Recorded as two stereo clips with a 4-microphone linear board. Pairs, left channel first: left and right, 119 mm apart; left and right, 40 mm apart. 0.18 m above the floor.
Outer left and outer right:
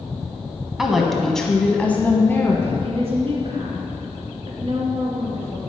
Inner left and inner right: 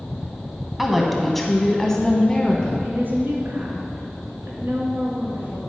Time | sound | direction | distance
0.8 | a woman speaking | 5° right (ahead or behind) | 1.0 m
2.8 | a woman speaking | 55° right (ahead or behind) | 2.5 m